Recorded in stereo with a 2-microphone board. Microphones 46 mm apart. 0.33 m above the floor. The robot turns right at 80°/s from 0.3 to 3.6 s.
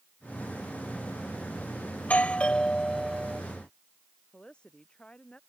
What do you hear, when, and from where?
2.0 s a doorbell: 90° left; by 3.4 s 155° right
4.3 s a woman speaking: 25° left (ahead or behind)